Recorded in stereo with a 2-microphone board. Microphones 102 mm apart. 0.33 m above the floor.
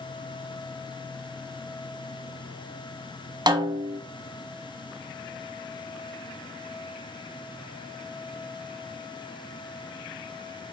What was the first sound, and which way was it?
A snare drum, 45° right (ahead or behind).